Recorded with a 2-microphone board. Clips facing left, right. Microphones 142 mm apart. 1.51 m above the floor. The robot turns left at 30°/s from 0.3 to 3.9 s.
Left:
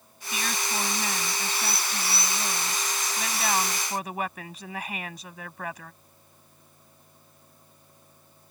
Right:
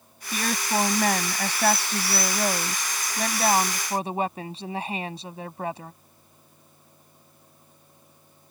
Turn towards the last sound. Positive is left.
turn(degrees=-150)